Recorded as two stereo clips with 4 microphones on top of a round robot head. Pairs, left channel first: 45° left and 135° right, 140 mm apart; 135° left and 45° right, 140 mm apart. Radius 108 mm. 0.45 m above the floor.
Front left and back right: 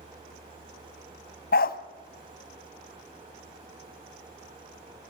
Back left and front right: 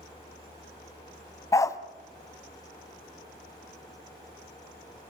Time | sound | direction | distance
1.5 | a dog barking | 65° left | 1.1 m